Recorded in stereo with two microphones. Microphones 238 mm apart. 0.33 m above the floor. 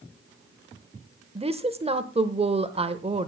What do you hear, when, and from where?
1.4 s a woman speaking: 25° right (ahead or behind), 0.9 m